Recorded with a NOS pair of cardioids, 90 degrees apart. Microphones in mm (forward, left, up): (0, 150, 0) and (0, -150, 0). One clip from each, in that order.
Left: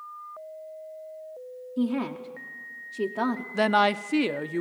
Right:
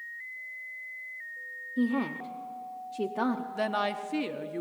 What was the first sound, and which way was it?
A woman speaking, 10° left.